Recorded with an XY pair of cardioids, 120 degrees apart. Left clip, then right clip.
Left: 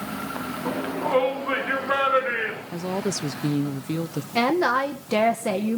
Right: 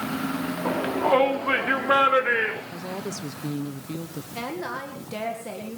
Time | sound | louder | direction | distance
0.7 | a shout | right 5 dB | 30° right | 4 m
2.7 | a woman speaking | left 5 dB | 40° left | 0.9 m
4.3 | a woman speaking | left 11 dB | 60° left | 1.8 m